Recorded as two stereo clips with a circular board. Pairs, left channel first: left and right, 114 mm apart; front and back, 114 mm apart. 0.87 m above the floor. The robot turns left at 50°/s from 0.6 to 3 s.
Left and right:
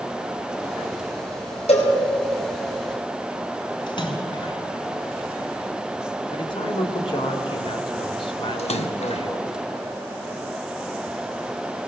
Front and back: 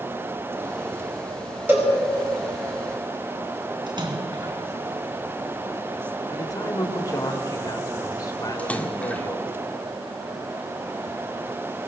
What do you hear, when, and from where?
1.7 s a cowbell: 110° left, 4.5 m; by 1.9 s 95° left, 4.5 m
3.9 s a splash: 135° left, 2.5 m
6.3 s a man speaking: 55° left, 2.5 m
8.6 s a splash: 75° left, 1.4 m